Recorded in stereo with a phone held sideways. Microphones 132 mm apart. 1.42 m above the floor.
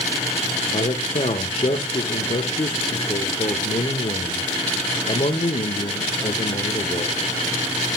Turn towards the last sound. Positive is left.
turn(degrees=60)  # may be behind; listen again after turning